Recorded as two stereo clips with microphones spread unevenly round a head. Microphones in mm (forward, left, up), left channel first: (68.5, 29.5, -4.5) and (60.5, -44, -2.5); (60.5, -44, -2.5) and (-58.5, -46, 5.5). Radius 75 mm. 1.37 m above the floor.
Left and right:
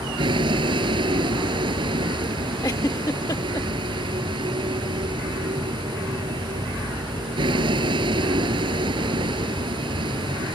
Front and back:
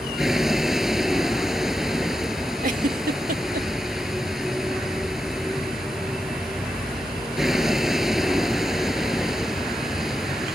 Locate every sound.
0.0 s a vehicle: 90° right
2.6 s a giggle: 150° left